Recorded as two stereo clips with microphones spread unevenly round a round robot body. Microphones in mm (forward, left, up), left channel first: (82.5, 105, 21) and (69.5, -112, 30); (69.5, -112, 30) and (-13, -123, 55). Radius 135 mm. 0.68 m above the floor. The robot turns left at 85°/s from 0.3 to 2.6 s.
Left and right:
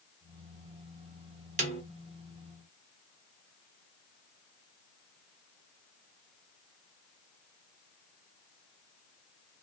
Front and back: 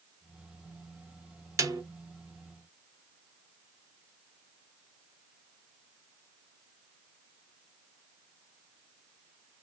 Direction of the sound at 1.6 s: 120° right.